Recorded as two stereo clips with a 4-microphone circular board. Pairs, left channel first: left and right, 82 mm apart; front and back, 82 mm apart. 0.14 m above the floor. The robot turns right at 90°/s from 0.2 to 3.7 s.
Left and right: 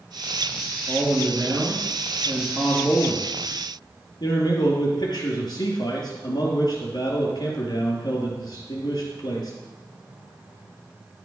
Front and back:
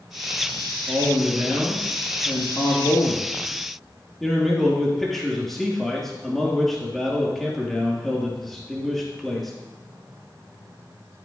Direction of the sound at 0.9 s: 170° right.